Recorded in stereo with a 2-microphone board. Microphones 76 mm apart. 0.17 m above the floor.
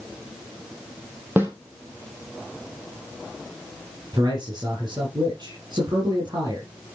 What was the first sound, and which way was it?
A snare drum, 30° right (ahead or behind).